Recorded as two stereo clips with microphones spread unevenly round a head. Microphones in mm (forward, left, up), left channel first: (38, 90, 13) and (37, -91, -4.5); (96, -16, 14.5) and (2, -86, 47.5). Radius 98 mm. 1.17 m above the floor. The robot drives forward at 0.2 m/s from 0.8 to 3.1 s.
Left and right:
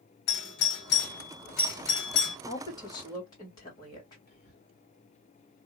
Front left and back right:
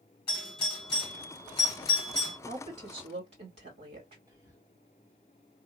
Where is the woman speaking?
160° left, 1.6 m; by 4.2 s 165° left, 1.7 m.